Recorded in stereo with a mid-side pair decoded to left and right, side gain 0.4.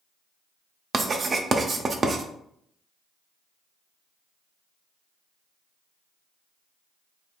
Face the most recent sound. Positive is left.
turn(degrees=-45)